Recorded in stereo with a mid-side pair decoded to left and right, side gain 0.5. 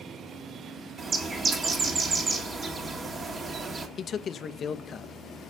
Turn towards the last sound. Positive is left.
turn(degrees=50)